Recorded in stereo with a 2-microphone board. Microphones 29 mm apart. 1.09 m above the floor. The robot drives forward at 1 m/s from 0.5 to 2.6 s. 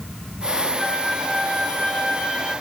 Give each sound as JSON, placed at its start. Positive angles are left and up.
{"t": 0.8, "sound": "a flute", "side_deg": 30, "distance_m": 3.0}